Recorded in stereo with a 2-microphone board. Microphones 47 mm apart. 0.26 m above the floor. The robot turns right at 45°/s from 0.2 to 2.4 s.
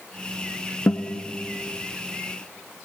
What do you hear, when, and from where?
0.9 s a guitar: 65° left (ahead or behind), 1.8 m; by 1.2 s 50° left (ahead or behind), 1.8 m